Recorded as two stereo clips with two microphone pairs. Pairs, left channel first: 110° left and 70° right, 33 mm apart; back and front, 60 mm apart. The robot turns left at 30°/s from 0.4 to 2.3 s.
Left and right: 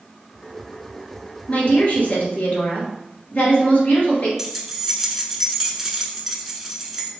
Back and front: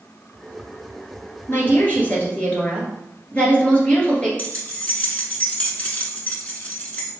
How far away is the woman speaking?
About 2 m.